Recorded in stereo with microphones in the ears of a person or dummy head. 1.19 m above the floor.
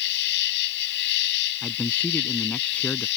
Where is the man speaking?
10° left (ahead or behind).